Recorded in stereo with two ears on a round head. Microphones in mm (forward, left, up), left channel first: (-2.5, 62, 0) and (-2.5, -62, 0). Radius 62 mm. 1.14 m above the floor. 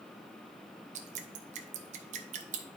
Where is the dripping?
55° right (ahead or behind), 0.8 m.